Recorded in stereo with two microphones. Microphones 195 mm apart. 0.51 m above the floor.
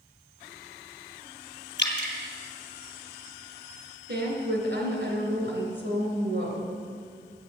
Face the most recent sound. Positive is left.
turn(degrees=-65)  # may be behind; listen again after turning